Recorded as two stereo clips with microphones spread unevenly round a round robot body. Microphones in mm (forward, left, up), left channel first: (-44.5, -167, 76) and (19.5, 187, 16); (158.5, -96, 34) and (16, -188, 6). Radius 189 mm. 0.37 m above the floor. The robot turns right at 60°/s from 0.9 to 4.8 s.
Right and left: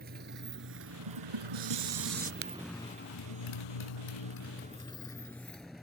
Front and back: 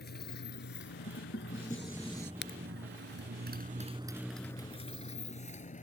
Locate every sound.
0.0 s a motorcycle: 15° left; by 5.8 s 10° right
1.1 s dishes clattering: 75° left; by 2.3 s 150° left
2.4 s a crack: 25° left; by 2.6 s 40° left